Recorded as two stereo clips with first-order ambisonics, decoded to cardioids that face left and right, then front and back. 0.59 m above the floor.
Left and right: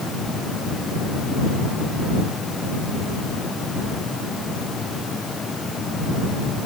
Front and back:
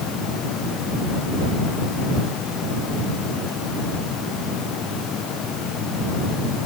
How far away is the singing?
No singing in this recording.